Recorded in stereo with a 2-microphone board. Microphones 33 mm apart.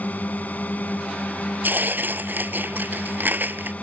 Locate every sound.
0.0 s a drone: 55° left (ahead or behind); by 3.8 s 50° left (ahead or behind)
1.6 s tearing paper: 75° right (ahead or behind)